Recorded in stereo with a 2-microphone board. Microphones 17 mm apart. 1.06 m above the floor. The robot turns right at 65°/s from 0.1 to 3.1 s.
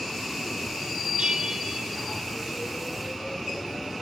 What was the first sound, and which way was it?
A bell, 70° right.